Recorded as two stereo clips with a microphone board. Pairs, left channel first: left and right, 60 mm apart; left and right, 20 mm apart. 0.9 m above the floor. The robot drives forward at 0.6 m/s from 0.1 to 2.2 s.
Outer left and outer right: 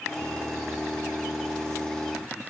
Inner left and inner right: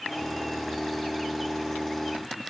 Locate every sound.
Only background noise.